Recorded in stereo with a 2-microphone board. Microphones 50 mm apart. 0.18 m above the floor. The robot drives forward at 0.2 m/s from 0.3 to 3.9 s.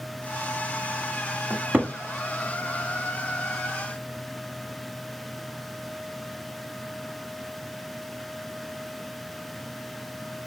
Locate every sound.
1.5 s a cupboard door: 35° right (ahead or behind), 0.9 m